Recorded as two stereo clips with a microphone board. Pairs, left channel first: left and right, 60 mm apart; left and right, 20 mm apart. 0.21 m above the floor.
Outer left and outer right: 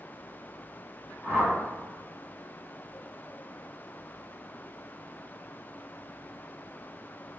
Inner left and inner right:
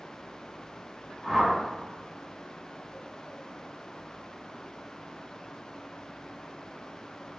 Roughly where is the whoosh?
Centre.